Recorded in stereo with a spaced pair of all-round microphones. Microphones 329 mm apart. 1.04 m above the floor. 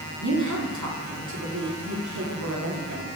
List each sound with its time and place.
0.2 s a woman speaking: 60° right (ahead or behind), 2.5 m